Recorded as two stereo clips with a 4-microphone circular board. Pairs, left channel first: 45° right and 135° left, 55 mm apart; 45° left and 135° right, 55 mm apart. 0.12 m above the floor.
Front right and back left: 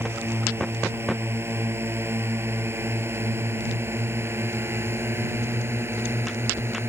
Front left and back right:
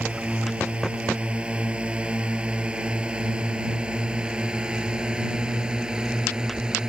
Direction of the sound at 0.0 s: 160° left.